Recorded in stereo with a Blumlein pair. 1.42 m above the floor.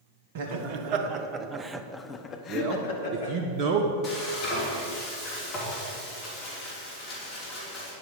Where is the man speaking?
45° right, 0.8 m.